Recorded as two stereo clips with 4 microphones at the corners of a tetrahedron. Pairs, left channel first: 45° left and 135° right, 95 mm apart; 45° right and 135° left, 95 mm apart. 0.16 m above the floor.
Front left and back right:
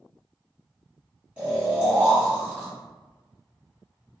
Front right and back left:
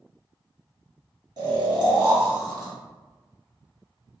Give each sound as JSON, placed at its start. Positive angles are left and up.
{"t": 1.4, "sound": "snoring", "azimuth_deg": 150, "distance_m": 1.5}